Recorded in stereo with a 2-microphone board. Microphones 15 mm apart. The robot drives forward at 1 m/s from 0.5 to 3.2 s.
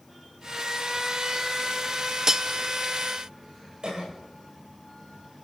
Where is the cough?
55° right (ahead or behind), 7.5 m.